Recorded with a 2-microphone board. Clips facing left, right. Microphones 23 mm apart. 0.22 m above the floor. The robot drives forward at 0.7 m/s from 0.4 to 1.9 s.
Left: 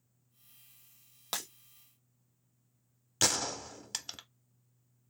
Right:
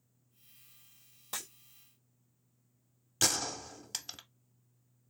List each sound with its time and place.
1.3 s breaking glass: 55° left (ahead or behind), 1.2 m
3.2 s a gunshot: 10° left (ahead or behind), 0.5 m